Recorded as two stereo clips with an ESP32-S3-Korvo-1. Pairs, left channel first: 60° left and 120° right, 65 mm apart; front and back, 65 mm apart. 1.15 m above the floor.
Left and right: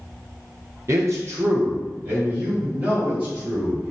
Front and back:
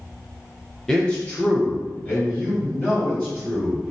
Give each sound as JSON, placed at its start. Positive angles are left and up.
{"t": 0.9, "sound": "a man speaking", "azimuth_deg": -85, "distance_m": 0.6}